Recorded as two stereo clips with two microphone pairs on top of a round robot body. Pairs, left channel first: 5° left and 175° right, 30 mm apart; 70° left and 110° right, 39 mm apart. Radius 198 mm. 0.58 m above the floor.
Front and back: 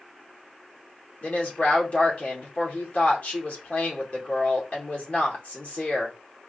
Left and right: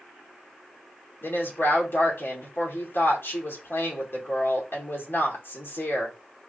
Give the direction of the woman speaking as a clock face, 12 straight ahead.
11 o'clock.